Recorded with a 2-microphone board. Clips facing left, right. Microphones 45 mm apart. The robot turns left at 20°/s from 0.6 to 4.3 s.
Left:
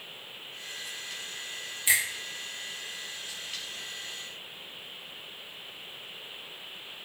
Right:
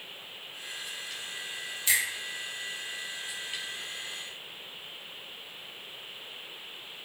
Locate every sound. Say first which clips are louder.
1.9 s a finger snap: left 2 dB; 20° left (ahead or behind), 1.3 m; by 2.0 s 15° left (ahead or behind), 1.3 m